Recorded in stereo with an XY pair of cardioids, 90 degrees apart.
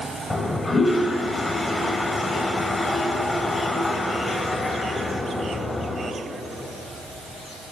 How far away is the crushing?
I don't hear crushing.